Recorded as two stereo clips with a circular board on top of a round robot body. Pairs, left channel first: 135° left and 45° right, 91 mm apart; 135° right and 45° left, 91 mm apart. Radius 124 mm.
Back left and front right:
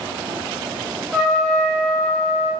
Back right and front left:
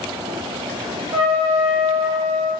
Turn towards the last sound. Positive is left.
turn(degrees=55)